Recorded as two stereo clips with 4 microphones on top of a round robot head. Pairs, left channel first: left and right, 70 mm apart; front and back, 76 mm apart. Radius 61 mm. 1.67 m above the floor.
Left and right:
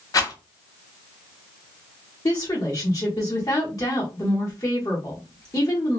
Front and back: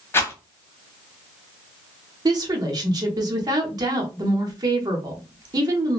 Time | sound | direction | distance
0.1 | a rattle | 60° left | 1.0 m
2.2 | a woman speaking | 145° left | 0.8 m